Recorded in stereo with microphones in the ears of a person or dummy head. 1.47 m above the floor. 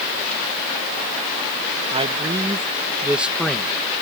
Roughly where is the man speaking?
Right.